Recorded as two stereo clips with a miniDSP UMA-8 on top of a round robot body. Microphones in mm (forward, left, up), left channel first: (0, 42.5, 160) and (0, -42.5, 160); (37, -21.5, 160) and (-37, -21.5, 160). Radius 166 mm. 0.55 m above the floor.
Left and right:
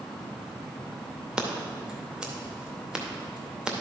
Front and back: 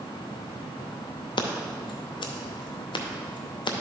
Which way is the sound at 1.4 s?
10° right.